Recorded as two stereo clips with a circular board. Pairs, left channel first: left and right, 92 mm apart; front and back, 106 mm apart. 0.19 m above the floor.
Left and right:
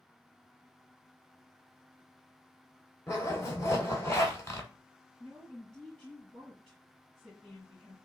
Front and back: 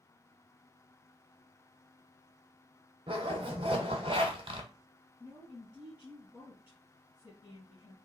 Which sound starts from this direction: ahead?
A woman speaking, at 5.2 s.